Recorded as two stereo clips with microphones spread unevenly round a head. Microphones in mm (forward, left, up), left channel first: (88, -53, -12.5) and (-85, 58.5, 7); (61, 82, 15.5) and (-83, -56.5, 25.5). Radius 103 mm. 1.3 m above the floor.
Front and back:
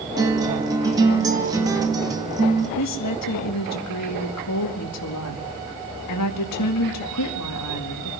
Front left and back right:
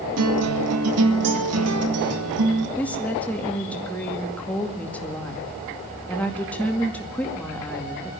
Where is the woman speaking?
40° right, 2 m.